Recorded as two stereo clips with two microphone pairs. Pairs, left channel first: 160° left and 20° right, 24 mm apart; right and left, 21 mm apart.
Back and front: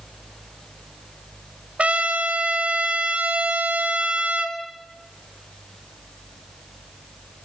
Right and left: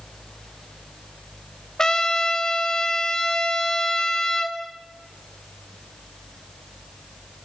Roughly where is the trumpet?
Ahead right.